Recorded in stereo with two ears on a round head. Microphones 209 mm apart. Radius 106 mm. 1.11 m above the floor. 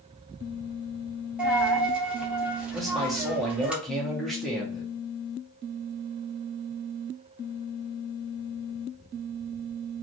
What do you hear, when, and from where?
1.4 s a dropped coin: 5° right (ahead or behind), 0.7 m
2.7 s a man speaking: centre (ahead or behind), 1.0 m